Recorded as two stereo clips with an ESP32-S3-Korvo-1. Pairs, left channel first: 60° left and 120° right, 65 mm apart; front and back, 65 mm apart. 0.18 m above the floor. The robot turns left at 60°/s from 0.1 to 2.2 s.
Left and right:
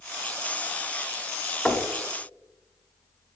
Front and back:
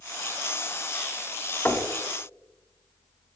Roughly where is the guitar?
I don't hear a guitar.